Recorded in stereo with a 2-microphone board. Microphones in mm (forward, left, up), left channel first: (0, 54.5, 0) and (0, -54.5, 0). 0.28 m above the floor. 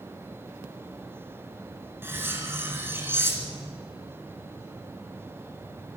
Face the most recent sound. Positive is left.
turn(degrees=-20)  # may be behind; listen again after turning